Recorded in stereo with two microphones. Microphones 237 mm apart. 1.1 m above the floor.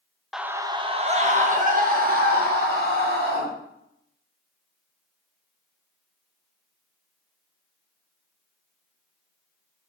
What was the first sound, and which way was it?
A scream, centre (ahead or behind).